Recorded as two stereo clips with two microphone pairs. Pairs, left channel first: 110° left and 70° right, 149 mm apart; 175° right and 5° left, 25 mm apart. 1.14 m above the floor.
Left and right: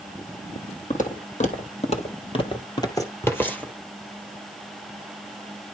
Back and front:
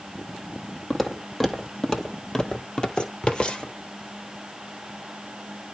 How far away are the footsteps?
About 2 m.